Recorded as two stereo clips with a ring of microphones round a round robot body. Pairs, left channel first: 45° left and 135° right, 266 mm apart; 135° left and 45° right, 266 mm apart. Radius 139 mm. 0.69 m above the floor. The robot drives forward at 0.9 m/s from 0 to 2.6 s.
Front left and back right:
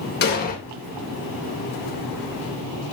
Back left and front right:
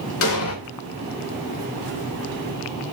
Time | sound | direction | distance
0.2 | an explosion | 95° left | 2.5 m